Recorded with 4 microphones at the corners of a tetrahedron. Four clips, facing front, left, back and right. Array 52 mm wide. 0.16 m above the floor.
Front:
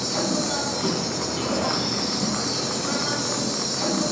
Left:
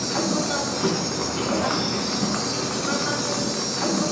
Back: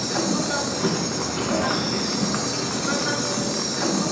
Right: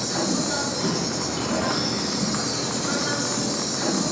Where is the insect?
125° left, 2.5 m.